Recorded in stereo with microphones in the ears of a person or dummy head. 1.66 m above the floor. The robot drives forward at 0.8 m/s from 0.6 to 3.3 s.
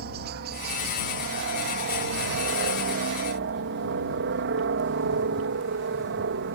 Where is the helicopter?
50° right (ahead or behind); by 6.6 s 60° right (ahead or behind).